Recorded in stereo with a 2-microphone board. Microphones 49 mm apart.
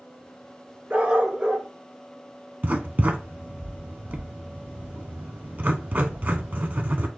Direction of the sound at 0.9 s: 30° right (ahead or behind).